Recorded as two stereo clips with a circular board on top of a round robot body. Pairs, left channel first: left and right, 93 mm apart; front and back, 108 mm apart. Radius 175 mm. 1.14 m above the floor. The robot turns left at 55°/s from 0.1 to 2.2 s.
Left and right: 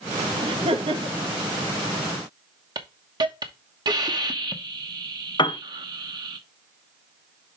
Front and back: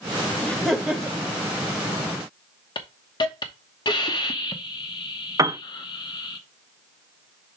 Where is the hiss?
50° right, 1.1 m.